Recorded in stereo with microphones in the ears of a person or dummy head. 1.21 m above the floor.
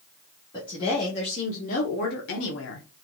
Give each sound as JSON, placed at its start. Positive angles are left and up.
{"t": 0.5, "sound": "a woman speaking", "side_deg": 25, "distance_m": 1.8}